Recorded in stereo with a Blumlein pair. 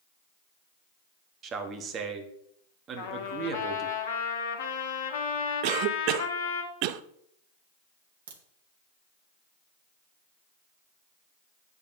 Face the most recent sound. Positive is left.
turn(degrees=-60)